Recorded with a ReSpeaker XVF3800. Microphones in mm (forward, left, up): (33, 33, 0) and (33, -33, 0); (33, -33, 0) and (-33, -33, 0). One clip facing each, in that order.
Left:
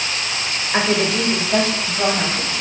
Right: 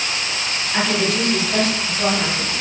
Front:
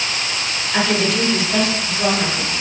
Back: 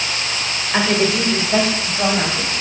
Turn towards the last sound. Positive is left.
turn(degrees=140)